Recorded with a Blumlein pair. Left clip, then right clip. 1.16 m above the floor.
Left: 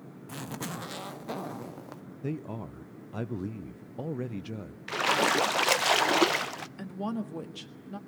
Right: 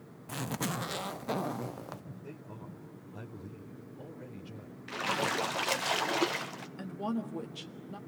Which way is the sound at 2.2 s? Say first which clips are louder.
Left 15 dB; 55° left.